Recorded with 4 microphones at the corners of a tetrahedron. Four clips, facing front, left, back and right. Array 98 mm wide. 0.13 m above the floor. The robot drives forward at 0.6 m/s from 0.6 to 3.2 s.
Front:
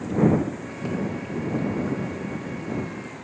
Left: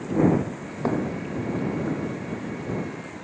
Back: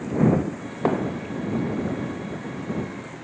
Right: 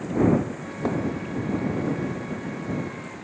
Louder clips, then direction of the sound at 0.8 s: Left 1 dB, back 5 dB; 170° left.